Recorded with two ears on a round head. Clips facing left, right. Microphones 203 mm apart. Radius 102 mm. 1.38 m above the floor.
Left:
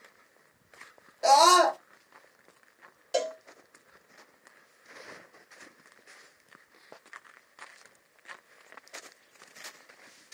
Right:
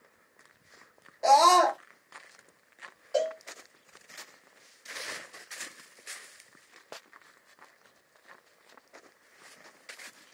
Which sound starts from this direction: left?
A cowbell, at 3.1 s.